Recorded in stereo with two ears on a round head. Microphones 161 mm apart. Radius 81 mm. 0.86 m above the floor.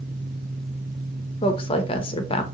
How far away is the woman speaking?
About 0.6 m.